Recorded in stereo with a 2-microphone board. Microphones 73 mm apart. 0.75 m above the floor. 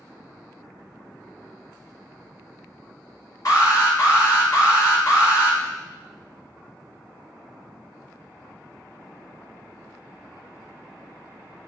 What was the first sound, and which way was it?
An alarm, 55° left (ahead or behind).